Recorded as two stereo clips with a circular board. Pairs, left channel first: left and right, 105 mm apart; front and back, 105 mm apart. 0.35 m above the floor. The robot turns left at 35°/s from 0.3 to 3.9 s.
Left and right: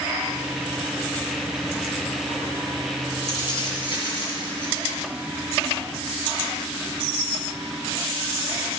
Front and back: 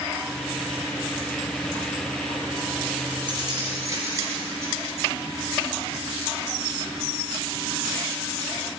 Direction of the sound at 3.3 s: 145° left.